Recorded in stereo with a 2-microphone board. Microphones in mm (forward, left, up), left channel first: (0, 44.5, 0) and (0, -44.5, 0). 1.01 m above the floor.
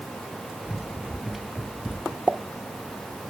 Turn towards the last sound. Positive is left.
turn(degrees=-15)  # may be behind; listen again after turning